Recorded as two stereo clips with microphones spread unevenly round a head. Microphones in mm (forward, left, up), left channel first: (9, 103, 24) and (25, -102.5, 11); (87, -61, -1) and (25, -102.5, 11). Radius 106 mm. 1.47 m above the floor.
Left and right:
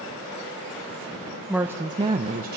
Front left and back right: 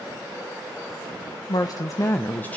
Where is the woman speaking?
5° left, 0.8 m; by 2.6 s 45° right, 0.8 m.